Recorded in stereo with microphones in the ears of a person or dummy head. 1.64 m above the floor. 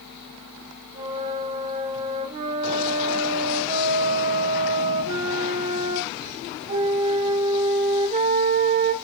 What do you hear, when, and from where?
0.9 s a flute: 35° right (ahead or behind), 1.7 m